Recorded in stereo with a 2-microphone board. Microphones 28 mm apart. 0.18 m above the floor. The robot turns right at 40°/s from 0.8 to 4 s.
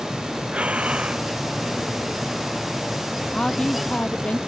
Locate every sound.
0.5 s breathing: 55° right (ahead or behind); by 1.3 s 35° right (ahead or behind)
3.3 s a woman speaking: 25° left (ahead or behind); by 4.4 s 55° left (ahead or behind)